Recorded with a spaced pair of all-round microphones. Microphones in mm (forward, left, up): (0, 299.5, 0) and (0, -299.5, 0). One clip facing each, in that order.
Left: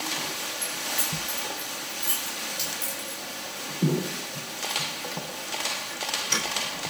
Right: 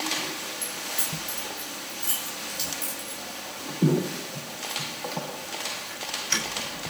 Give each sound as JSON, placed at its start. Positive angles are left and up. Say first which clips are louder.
{"t": 0.6, "sound": "keys jangling", "louder": "left 1 dB", "side_deg": 0, "distance_m": 8.0}